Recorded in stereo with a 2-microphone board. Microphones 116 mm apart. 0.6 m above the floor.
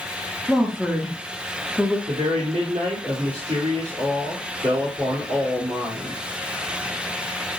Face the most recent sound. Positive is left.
turn(degrees=-60)  # may be behind; listen again after turning